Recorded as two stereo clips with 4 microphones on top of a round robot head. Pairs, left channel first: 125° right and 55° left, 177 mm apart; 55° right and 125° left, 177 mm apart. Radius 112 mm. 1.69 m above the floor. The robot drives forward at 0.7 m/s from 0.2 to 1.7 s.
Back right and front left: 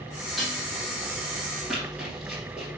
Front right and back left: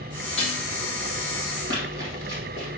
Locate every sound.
0.4 s dishes clattering: 30° right, 0.8 m; by 0.6 s 50° right, 0.8 m
1.7 s running footsteps: 140° left, 2 m